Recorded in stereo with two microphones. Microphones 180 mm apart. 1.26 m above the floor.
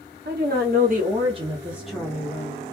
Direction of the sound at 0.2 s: 60° right (ahead or behind).